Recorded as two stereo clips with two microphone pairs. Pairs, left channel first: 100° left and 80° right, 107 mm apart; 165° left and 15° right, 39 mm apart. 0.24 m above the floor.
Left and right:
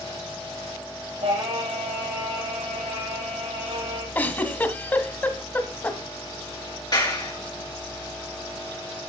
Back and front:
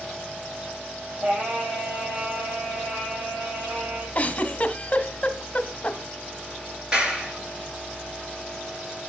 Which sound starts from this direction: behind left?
A giggle, at 4.2 s.